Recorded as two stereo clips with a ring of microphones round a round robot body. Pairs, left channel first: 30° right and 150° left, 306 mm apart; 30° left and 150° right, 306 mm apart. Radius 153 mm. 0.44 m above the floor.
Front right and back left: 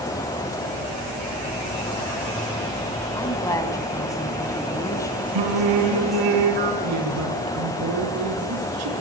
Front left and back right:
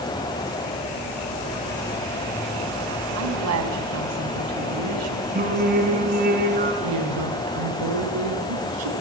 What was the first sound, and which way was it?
A woman speaking, 110° right.